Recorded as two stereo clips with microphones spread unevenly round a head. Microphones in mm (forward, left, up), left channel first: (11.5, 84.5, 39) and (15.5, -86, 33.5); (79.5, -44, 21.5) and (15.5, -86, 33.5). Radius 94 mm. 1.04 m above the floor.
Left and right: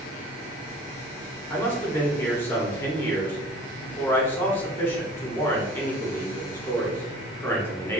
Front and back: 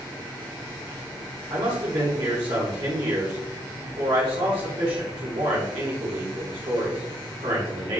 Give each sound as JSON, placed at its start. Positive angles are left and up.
{"t": 1.5, "sound": "a man speaking", "azimuth_deg": 170, "distance_m": 2.0}